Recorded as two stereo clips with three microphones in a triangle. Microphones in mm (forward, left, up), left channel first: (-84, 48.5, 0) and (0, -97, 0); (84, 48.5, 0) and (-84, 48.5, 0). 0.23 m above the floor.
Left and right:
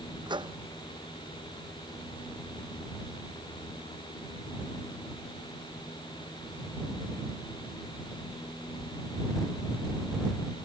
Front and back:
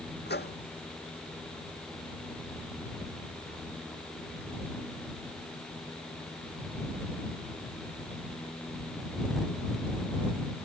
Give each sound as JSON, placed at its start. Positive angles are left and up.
{"t": 0.3, "sound": "a microwave", "azimuth_deg": 0}